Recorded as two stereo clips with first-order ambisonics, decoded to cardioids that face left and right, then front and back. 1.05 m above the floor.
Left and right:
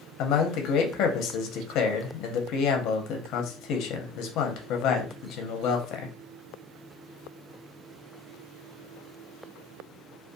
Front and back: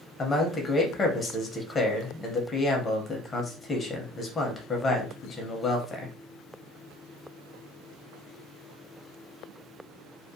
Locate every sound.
0.2 s a man speaking: 65° left, 0.6 m